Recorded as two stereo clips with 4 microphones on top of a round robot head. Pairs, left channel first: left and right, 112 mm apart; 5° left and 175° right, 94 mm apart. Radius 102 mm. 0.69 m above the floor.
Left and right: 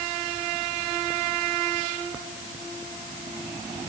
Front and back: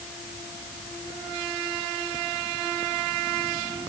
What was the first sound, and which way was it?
Only background noise.